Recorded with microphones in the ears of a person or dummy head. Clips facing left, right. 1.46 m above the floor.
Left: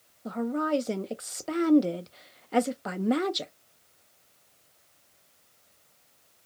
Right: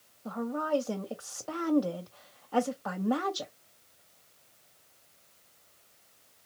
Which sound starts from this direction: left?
A woman speaking, at 0.2 s.